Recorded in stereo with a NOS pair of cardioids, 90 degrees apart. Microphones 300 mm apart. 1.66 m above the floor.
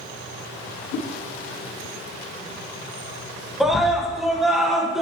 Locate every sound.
0.9 s a whoosh: 65° left, 1.2 m
3.6 s a scream: straight ahead, 1.6 m